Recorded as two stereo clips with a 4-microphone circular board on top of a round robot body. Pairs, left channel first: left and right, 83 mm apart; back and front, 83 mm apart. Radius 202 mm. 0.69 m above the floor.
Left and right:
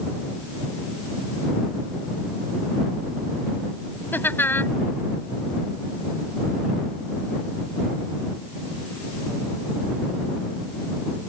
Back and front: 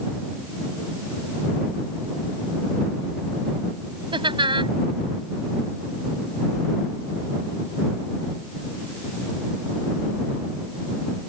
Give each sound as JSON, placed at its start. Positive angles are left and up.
{"t": 4.1, "sound": "laughter", "azimuth_deg": 25}